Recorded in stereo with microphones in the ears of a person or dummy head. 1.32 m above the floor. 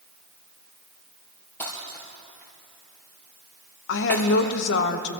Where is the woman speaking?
70° left (ahead or behind), 1.3 m.